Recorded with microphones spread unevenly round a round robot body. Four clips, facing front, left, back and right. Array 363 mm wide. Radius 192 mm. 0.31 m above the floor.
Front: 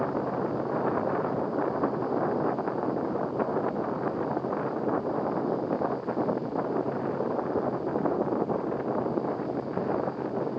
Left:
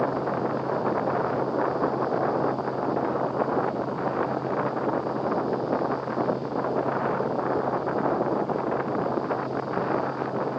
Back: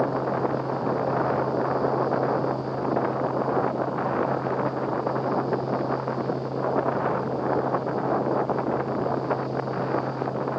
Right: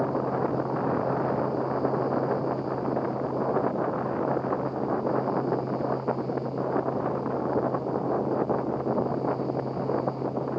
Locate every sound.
Only background noise.